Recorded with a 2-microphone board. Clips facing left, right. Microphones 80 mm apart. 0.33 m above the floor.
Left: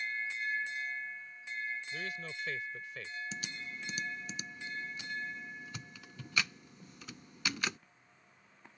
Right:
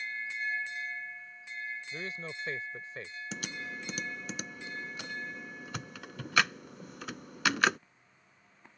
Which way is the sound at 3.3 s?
75° right (ahead or behind).